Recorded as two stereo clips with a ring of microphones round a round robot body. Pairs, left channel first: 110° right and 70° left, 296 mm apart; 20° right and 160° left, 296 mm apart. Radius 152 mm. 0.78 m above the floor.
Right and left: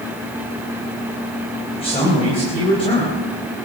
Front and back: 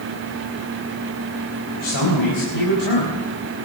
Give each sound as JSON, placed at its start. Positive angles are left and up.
{"t": 1.7, "sound": "a man speaking", "azimuth_deg": -40, "distance_m": 4.0}